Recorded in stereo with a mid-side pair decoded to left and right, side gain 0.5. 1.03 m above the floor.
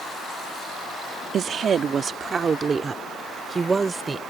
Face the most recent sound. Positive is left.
turn(degrees=-30)